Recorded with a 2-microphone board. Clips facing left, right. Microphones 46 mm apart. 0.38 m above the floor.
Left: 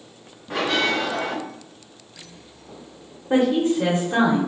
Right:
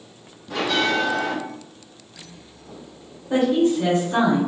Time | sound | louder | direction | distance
0.5 | a bell | even | 30° left (ahead or behind) | 1.7 m
3.3 | a woman speaking | even | 30° left (ahead or behind) | 1.1 m